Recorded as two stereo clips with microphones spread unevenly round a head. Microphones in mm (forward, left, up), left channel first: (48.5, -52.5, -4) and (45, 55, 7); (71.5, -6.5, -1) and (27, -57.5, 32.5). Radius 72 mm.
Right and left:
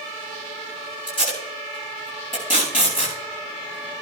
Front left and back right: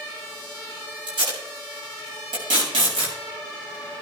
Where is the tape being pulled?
145° right, 8 m.